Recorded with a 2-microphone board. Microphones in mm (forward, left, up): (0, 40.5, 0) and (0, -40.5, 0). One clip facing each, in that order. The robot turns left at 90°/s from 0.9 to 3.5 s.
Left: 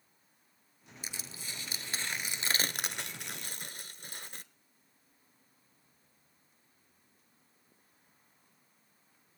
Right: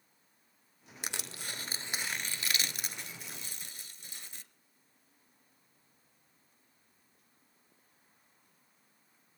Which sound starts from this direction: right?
Crushing, at 1.0 s.